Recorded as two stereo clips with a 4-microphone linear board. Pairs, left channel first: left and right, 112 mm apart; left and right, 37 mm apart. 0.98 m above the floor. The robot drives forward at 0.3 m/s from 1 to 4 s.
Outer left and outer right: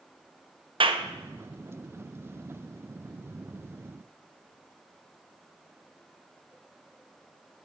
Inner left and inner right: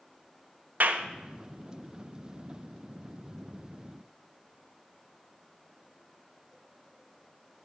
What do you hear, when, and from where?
0.8 s a clap: 55° right (ahead or behind), 0.6 m; by 1.1 s 60° right (ahead or behind), 0.5 m